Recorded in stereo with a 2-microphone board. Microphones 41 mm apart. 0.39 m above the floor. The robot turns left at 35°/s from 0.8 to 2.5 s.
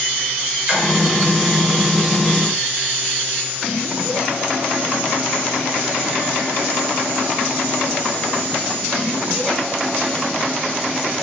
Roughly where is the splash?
Centre.